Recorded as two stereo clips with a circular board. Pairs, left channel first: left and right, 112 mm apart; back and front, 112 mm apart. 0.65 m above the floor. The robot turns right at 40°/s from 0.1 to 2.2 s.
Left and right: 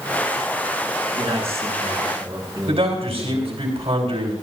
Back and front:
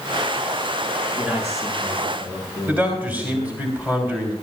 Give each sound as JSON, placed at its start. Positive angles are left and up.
{"t": 1.2, "sound": "a man speaking", "azimuth_deg": -75, "distance_m": 6.5}
{"t": 2.7, "sound": "a man speaking", "azimuth_deg": -75, "distance_m": 3.5}